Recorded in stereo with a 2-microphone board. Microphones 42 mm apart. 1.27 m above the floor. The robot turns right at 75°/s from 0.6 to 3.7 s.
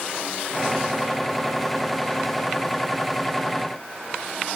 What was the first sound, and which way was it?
Only background noise.